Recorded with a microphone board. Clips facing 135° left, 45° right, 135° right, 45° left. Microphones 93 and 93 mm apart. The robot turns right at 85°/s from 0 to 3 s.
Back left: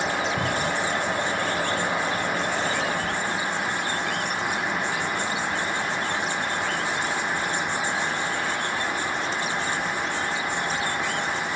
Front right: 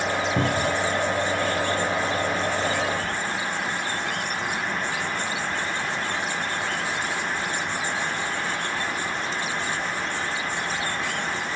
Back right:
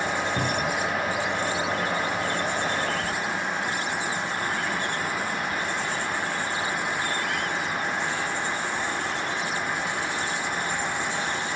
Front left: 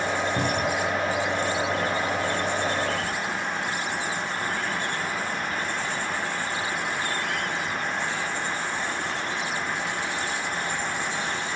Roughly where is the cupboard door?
Ahead right.